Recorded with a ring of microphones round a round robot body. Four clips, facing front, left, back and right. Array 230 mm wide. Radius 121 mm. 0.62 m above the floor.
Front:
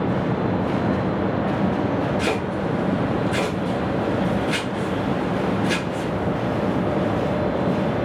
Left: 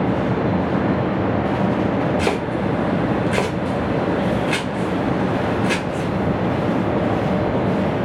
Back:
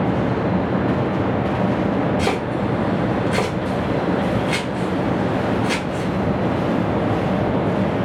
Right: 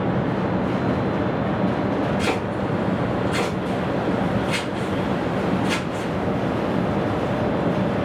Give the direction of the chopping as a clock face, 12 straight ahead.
9 o'clock.